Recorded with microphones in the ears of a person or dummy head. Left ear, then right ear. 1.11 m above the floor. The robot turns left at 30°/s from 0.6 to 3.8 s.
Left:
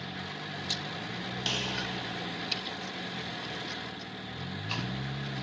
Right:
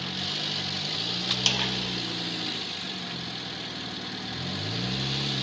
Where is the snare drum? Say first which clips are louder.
Right 5 dB; 30° right (ahead or behind), 0.8 m; by 1.7 s 35° right (ahead or behind), 0.8 m.